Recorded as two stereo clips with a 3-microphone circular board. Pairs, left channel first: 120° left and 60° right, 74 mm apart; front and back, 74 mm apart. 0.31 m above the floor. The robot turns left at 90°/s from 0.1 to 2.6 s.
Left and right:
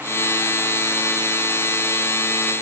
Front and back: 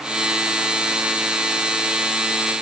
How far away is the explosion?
No explosion in this recording.